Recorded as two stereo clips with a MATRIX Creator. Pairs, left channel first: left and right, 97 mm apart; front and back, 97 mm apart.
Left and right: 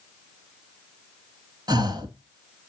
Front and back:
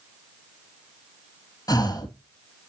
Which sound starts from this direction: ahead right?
Breathing, at 1.7 s.